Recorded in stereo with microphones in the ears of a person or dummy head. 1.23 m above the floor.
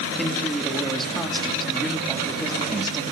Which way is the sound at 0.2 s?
5° left (ahead or behind).